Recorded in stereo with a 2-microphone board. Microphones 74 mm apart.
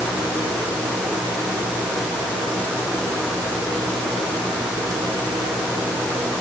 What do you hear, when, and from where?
Only background noise.